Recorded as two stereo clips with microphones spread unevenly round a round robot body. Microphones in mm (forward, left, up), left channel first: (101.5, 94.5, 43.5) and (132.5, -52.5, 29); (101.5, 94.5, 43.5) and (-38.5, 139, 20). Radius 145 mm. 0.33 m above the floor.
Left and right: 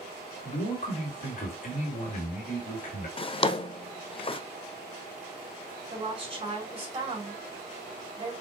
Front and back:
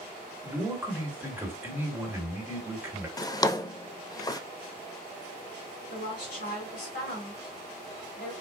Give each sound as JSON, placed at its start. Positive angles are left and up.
{"t": 0.4, "sound": "a man speaking", "azimuth_deg": 100, "distance_m": 1.9}
{"t": 3.2, "sound": "a drawer", "azimuth_deg": 50, "distance_m": 0.6}
{"t": 5.9, "sound": "a woman speaking", "azimuth_deg": -30, "distance_m": 3.5}